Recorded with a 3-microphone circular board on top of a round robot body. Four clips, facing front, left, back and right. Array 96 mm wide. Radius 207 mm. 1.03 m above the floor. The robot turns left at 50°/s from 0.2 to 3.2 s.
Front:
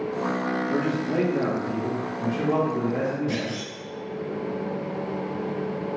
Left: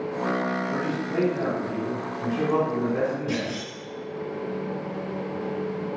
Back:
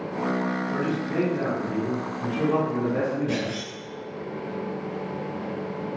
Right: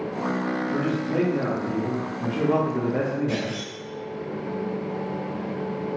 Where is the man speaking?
5° left, 1.7 m; by 3.6 s 120° right, 1.7 m.